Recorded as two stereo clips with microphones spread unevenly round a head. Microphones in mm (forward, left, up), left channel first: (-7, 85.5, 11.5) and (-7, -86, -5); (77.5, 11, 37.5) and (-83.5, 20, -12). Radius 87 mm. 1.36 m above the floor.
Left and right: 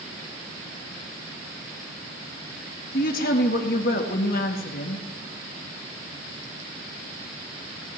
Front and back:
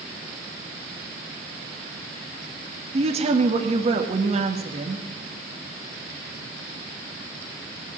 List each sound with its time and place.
2.9 s a woman speaking: 125° left, 1.7 m